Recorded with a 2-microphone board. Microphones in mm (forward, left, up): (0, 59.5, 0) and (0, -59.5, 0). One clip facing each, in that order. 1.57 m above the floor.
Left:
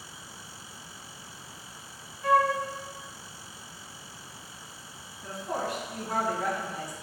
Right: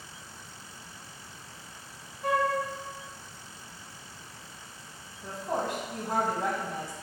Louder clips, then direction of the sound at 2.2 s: Left 4 dB; 25° right (ahead or behind).